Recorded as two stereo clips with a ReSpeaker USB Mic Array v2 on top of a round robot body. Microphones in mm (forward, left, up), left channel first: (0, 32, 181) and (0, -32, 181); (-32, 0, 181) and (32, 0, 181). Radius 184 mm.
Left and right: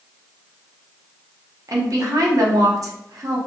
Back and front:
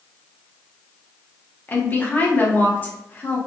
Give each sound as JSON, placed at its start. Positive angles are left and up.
{"t": 1.7, "sound": "a woman speaking", "azimuth_deg": -115, "distance_m": 0.8}